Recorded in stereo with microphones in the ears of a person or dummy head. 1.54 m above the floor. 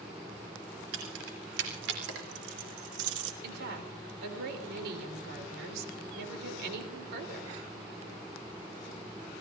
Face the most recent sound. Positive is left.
turn(degrees=-65)  # may be behind; listen again after turning